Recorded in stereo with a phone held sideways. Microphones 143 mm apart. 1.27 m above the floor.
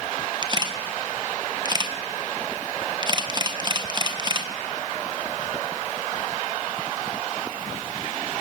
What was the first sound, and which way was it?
A camera shutter, 30° right (ahead or behind).